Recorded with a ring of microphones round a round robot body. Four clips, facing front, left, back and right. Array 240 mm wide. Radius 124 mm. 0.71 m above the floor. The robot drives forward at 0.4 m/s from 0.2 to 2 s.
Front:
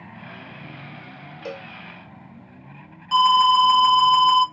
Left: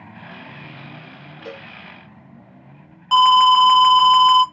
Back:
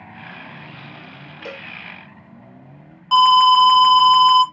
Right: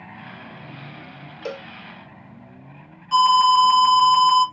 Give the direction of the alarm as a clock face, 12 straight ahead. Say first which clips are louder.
Left 3 dB, back 4 dB; 8 o'clock.